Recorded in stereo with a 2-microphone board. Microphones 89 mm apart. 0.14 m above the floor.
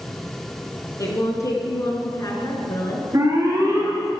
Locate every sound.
1.0 s a woman speaking: 40° left (ahead or behind), 1.9 m
3.1 s an alarm: 45° right (ahead or behind), 2.5 m